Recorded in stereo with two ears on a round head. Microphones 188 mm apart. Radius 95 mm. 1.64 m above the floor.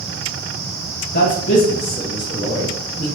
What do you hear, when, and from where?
1.1 s a man speaking: 45° left (ahead or behind), 1.4 m; by 3.1 s 15° left (ahead or behind), 2 m